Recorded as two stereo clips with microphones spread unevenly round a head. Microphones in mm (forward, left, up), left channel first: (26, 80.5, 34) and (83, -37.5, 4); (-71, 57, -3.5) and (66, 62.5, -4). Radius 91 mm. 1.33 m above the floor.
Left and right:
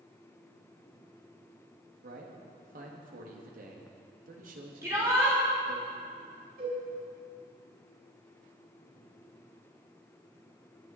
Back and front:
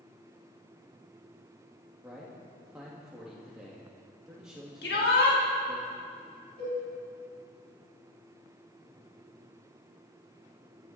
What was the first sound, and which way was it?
A man speaking, 85° right.